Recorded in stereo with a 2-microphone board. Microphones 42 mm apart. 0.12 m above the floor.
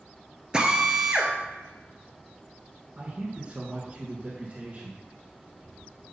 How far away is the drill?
About 1.1 m.